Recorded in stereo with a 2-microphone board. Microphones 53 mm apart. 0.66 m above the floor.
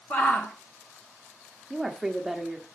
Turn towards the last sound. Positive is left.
turn(degrees=0)  # may be behind; listen again after turning